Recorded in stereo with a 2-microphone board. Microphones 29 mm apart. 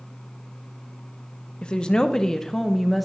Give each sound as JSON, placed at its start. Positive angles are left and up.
{"t": 1.6, "sound": "a woman speaking", "side_deg": 30, "distance_m": 0.9}